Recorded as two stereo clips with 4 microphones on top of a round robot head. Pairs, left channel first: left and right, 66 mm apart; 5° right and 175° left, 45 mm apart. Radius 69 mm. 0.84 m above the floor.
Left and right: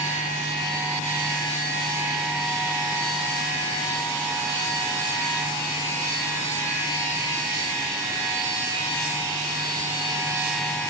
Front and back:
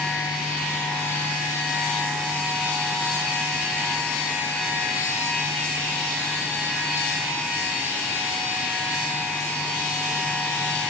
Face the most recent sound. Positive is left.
No sound to turn to.